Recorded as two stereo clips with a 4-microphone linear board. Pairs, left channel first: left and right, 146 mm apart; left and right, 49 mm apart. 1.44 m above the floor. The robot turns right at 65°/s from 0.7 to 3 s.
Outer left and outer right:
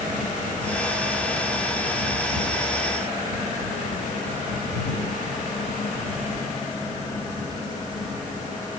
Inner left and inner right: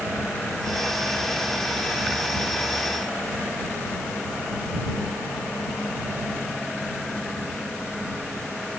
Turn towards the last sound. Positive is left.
No sound to turn to.